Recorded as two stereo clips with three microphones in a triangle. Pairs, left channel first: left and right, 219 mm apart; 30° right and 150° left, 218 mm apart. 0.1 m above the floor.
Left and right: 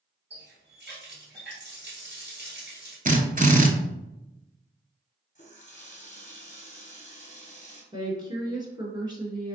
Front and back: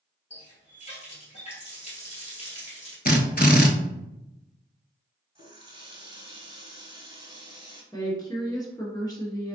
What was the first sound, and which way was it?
A running tap, 80° right.